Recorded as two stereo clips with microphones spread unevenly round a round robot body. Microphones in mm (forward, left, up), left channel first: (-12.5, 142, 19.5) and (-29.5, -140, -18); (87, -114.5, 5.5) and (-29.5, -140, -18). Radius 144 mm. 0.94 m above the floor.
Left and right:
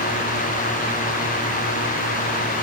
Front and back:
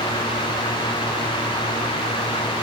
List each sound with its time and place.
Only background noise.